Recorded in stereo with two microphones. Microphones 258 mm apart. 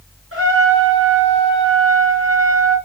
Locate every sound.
0.3 s a trumpet: 55° right (ahead or behind), 5.5 m